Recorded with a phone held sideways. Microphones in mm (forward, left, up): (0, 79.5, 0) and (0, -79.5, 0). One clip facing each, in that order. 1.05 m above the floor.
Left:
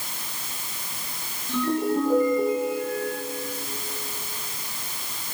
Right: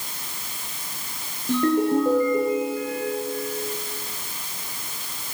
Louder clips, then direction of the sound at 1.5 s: Right 4 dB; 55° right (ahead or behind).